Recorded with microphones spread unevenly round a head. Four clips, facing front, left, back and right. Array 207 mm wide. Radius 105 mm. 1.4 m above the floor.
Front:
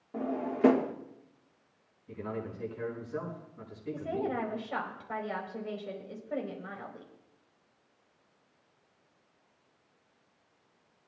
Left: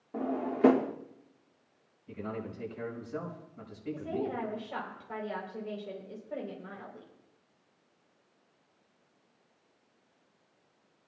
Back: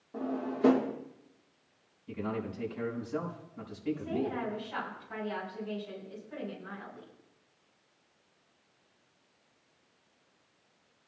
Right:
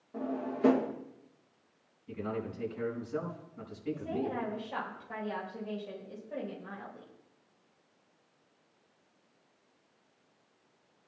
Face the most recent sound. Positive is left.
turn(degrees=55)